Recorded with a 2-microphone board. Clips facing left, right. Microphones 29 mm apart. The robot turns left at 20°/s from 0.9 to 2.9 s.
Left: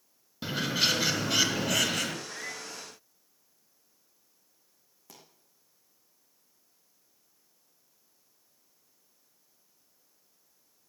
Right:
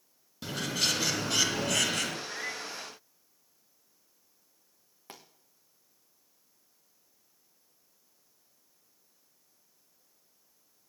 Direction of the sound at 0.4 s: 20° left (ahead or behind).